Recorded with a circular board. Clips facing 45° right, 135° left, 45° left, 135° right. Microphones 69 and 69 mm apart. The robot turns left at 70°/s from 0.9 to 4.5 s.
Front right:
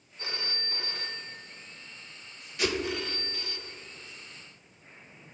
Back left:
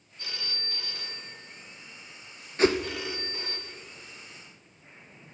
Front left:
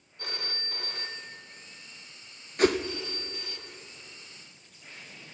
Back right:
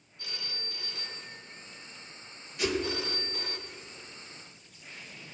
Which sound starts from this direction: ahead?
A phone ringing, at 0.2 s.